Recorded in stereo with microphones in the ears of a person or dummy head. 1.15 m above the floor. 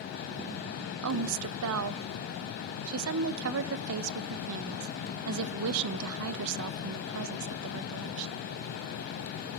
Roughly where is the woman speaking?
Right.